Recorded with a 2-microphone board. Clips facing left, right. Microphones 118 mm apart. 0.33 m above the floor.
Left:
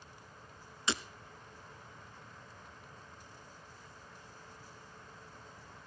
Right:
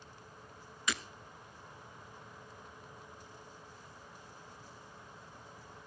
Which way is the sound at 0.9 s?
30° left (ahead or behind).